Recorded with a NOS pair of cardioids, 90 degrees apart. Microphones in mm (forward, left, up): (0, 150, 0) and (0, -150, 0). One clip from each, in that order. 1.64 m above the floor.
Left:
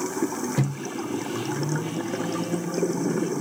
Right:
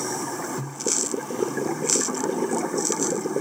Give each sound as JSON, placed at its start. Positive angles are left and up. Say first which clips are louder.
{"t": 0.6, "sound": "a microwave", "louder": "right 3 dB", "azimuth_deg": 55, "distance_m": 0.5}